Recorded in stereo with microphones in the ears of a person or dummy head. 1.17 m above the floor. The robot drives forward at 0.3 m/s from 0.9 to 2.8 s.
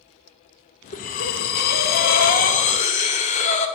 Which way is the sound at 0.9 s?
40° left (ahead or behind).